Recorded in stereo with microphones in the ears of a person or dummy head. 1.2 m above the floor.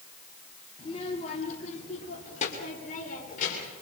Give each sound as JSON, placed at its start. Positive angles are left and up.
{"t": 0.8, "sound": "a child speaking", "side_deg": 30, "distance_m": 1.9}